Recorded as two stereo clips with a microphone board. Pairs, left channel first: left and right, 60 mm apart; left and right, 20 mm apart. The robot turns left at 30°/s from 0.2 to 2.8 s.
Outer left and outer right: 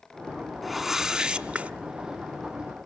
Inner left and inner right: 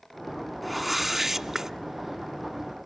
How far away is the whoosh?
About 0.7 m.